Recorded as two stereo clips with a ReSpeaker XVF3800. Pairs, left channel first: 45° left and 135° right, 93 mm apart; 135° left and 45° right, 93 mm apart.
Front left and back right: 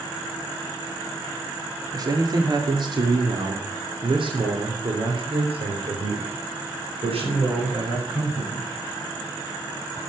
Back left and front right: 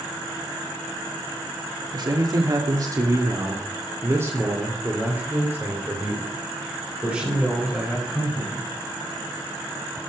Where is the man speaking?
85° right, 2.5 m; by 8.7 s 125° right, 5.5 m.